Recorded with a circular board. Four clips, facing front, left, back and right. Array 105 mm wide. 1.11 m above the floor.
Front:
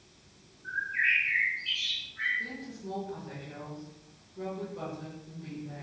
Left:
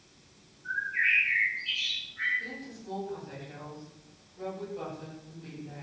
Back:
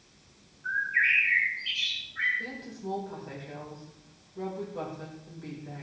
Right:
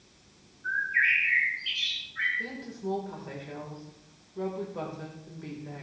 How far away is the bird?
About 7 m.